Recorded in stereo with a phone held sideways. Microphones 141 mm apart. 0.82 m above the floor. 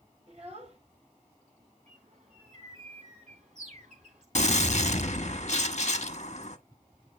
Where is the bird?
60° right (ahead or behind), 3.5 m.